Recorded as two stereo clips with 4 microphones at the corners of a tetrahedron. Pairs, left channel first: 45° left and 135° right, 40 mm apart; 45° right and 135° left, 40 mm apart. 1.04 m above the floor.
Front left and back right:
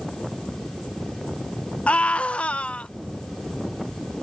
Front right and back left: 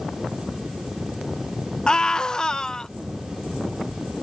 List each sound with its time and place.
1.9 s a scream: 10° left